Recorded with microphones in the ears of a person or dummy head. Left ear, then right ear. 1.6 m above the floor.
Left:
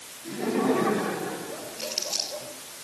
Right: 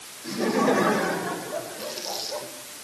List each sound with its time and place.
0.2 s laughter: 85° right, 8 m; by 2.5 s 65° right (ahead or behind), 6.5 m
1.8 s crumpling: 25° left (ahead or behind), 10 m